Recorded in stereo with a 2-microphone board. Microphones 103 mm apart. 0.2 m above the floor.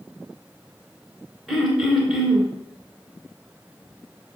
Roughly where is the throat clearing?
Centre.